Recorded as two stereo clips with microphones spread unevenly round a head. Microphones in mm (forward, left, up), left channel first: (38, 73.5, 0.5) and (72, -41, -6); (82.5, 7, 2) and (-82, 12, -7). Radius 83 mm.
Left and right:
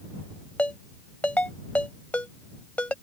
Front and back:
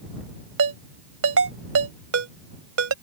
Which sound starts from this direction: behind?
A ringtone, at 0.6 s.